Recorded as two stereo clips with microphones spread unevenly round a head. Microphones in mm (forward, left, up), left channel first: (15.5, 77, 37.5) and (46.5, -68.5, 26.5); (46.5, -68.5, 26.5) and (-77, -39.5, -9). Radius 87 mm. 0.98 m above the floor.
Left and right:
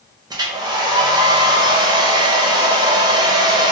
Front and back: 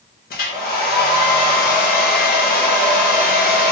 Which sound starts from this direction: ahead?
A hair dryer, at 0.3 s.